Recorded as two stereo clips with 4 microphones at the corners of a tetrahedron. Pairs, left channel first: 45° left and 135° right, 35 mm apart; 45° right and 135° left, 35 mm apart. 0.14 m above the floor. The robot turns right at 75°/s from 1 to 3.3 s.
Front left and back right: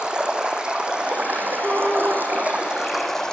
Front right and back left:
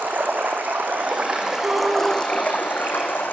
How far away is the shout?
About 5 m.